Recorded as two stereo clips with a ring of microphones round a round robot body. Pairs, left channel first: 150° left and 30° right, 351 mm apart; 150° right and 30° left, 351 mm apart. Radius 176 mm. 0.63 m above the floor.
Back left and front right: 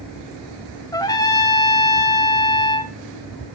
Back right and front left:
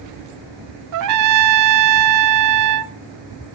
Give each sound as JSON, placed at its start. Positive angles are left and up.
{"t": 0.9, "sound": "a trumpet", "azimuth_deg": 70, "distance_m": 0.7}